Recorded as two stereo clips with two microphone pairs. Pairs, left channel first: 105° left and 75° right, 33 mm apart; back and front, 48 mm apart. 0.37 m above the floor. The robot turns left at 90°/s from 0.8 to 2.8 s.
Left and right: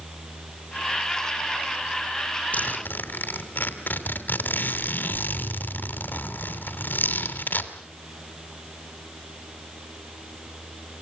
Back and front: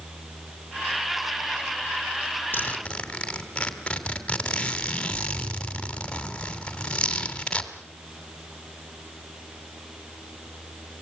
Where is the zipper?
135° left, 3 m; by 7.7 s 110° left, 3 m.